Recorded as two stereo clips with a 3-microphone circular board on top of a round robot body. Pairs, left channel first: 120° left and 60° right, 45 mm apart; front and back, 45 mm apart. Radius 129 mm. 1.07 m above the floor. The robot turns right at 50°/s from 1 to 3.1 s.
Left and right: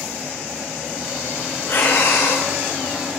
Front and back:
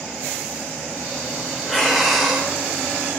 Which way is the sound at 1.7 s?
70° left.